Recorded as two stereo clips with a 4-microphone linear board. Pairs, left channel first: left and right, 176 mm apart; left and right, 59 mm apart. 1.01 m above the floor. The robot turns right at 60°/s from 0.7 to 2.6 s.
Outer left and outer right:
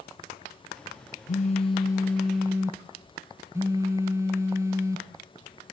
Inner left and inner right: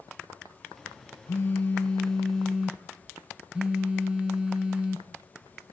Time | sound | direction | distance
1.3 | a phone buzzing | 120° left | 0.8 m